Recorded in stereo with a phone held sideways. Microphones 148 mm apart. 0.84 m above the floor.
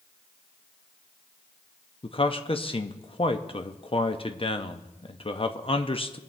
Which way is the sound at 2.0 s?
40° left (ahead or behind).